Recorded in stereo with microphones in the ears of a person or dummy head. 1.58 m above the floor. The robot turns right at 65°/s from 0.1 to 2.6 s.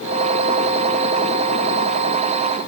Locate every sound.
Only background noise.